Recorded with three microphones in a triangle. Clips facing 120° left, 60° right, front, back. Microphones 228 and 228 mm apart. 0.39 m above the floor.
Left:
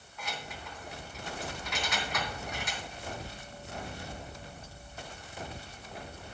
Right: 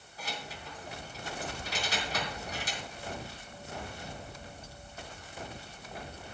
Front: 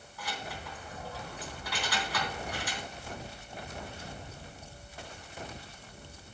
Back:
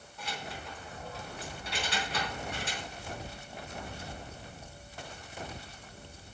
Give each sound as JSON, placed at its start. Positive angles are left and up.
{"t": 0.2, "sound": "keys jangling", "azimuth_deg": -115, "distance_m": 3.0}